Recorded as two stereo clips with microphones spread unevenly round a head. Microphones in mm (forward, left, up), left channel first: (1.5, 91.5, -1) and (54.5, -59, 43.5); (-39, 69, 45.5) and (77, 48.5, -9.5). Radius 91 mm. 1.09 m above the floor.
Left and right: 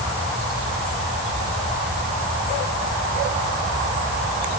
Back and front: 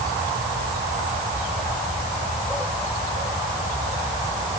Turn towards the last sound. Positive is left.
No sound to turn to.